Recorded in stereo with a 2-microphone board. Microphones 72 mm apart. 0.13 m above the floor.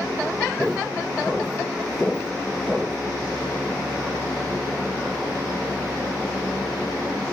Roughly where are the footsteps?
Centre.